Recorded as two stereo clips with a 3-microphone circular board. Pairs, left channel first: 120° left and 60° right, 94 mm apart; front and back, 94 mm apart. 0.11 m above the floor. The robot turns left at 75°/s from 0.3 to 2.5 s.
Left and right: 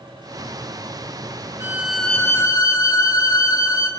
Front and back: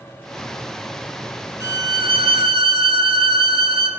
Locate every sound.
1.6 s a violin: 125° right, 0.5 m; by 3.9 s 170° left, 0.5 m